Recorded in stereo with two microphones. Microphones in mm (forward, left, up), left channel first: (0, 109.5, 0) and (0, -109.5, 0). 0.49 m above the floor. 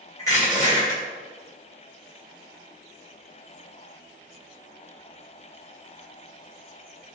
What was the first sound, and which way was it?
Crushing, 15° left (ahead or behind).